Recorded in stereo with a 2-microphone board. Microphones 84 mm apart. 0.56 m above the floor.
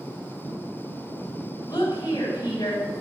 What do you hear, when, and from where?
1.7 s a woman speaking: 60° left (ahead or behind), 2.5 m